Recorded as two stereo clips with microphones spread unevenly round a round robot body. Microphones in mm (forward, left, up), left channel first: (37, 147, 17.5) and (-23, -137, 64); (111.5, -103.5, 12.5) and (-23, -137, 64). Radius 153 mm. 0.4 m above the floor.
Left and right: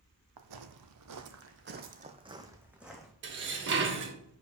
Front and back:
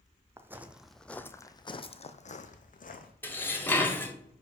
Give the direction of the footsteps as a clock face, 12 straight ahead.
3 o'clock.